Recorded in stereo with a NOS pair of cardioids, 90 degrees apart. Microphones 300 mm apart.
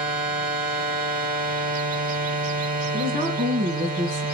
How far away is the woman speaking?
About 1.8 m.